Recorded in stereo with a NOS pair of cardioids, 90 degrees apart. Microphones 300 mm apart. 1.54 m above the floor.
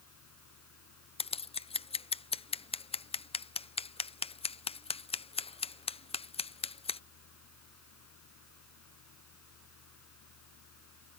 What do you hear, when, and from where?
0.0 s a fan: 65° left
1.2 s scissors: 20° left